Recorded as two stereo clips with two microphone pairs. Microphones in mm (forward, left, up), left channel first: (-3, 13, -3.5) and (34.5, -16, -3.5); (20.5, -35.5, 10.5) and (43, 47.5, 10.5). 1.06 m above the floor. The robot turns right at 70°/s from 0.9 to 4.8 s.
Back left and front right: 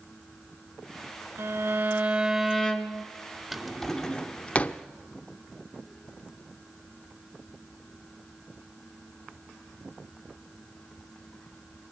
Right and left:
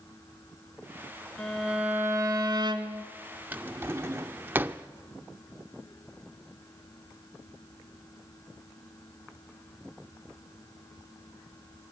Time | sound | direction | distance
1.4 | a violin | 15° right | 2 m
3.5 | a drawer | 30° left | 0.7 m